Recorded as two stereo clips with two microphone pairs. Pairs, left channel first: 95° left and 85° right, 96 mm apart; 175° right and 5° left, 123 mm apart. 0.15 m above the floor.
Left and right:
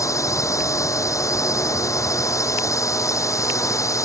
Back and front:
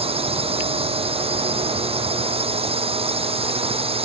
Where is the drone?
40° left.